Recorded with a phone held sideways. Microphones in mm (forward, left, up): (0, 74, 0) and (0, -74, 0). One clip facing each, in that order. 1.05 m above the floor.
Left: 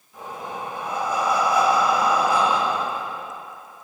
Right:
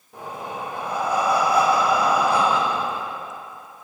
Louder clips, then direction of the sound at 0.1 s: Right 1 dB; 60° right (ahead or behind).